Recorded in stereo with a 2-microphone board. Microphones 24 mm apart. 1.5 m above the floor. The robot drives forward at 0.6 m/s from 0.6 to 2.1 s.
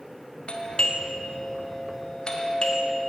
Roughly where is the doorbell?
Left.